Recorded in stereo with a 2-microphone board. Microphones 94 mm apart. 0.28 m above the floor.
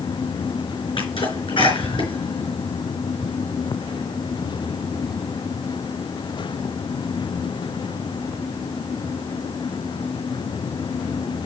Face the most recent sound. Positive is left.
turn(degrees=65)  # may be behind; listen again after turning